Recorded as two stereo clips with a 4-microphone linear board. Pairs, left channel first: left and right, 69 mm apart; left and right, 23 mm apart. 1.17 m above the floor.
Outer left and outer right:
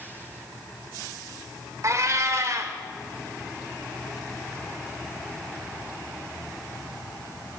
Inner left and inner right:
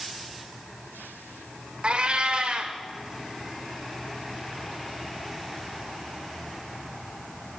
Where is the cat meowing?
50° right (ahead or behind), 1.1 m.